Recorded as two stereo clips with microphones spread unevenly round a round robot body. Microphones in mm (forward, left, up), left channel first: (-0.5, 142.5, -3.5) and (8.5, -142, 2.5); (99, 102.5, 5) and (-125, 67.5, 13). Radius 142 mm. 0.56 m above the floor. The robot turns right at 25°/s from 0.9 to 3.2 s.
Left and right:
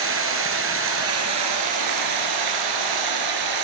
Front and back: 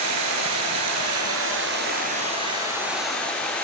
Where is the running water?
135° right, 6 m; by 3.6 s 80° right, 6 m.